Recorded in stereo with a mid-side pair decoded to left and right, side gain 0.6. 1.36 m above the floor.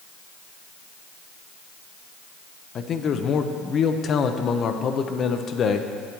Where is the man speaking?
45° left, 0.6 m.